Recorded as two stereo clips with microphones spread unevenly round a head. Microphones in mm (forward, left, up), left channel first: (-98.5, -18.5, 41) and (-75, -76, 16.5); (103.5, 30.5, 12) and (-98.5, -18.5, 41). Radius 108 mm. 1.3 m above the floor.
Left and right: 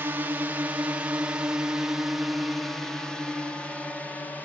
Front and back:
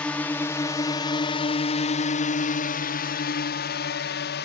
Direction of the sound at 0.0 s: 65° right.